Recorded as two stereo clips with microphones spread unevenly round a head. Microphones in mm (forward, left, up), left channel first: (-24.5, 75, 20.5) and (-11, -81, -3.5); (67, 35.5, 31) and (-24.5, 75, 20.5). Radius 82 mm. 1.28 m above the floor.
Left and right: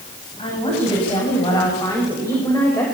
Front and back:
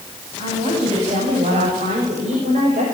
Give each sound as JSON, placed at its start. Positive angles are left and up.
{"t": 0.4, "sound": "a woman speaking", "azimuth_deg": 150, "distance_m": 9.0}